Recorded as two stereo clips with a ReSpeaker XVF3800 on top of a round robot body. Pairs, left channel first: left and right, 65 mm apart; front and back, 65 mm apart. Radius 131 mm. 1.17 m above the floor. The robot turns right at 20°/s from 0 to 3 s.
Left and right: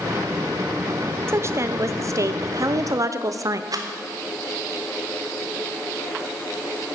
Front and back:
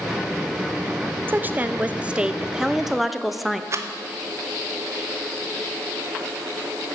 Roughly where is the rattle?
Behind right.